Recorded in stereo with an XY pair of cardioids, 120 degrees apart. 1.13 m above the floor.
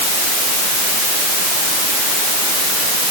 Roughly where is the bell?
I don't hear a bell.